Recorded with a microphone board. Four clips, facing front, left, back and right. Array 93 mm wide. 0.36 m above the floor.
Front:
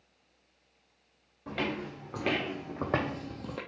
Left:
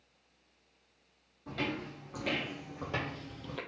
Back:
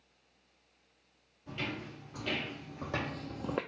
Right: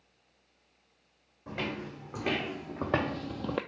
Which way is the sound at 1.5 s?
20° right.